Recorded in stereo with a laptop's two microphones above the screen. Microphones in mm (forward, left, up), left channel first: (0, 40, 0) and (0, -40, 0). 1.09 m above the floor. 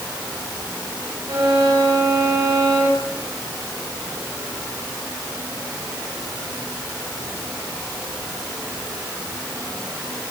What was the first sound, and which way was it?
A violin, 75° right (ahead or behind).